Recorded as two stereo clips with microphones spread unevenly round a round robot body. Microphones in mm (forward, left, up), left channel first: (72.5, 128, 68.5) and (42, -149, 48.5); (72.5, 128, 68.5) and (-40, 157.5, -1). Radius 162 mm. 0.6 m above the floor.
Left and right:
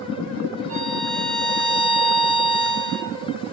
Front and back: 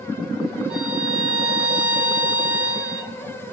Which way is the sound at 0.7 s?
145° right.